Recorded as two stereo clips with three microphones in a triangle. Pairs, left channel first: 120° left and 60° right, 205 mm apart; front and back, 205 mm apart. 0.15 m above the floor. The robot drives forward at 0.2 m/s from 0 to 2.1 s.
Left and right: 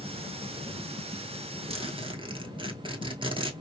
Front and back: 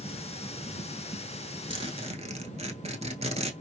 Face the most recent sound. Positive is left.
turn(degrees=-120)